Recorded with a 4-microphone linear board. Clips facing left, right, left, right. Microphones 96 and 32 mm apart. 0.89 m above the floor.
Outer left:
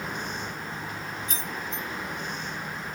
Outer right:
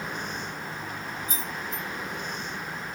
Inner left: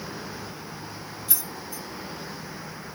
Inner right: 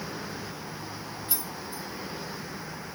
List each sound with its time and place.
1.3 s keys jangling: 70° left (ahead or behind), 1.5 m